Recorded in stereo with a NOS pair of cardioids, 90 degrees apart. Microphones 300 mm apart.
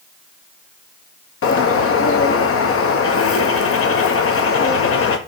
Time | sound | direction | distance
1.4 | a bird | 50° left | 1.1 m